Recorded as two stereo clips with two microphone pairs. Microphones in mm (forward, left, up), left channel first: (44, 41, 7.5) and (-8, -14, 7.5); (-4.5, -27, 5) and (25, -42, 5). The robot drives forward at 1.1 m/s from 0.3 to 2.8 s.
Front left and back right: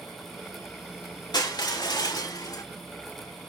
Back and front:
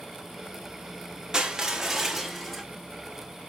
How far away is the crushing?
About 2.5 m.